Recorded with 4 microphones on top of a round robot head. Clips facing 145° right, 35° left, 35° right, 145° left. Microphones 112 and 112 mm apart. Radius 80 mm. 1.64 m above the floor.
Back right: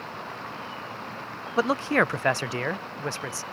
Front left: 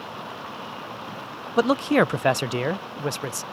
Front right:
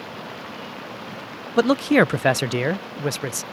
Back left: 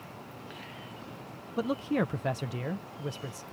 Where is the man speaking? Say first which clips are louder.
Front left 4 dB, front right 12 dB; 35° right.